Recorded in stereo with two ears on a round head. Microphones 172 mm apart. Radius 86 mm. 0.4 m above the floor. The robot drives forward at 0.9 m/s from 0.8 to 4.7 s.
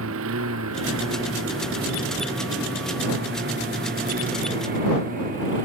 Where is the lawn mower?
85° right; by 5.7 s 45° right (ahead or behind).